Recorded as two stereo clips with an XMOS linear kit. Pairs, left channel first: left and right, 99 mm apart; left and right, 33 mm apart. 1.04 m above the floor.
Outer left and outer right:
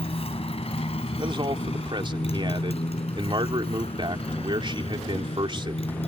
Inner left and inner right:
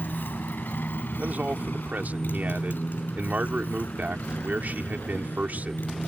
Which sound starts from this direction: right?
A man speaking, at 1.2 s.